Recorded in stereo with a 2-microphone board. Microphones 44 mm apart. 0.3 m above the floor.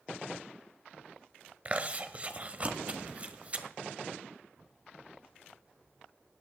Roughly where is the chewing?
Right.